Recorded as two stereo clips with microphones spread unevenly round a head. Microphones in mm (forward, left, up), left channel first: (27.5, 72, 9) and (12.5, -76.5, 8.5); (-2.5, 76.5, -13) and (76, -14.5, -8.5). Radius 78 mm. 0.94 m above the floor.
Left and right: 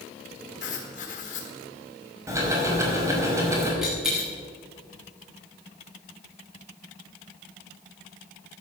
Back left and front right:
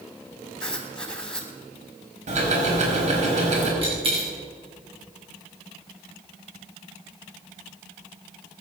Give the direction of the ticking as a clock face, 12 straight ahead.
1 o'clock.